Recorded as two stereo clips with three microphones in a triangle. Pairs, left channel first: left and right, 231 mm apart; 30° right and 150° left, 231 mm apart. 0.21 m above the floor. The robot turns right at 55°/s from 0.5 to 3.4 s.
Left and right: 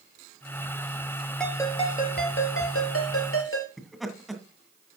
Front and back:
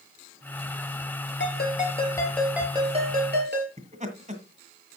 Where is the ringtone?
Straight ahead, 3.5 m; by 3.7 s 110° left, 3.5 m.